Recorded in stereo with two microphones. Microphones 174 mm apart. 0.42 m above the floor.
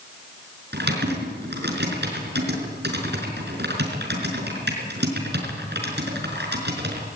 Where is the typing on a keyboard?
80° right, 5 m.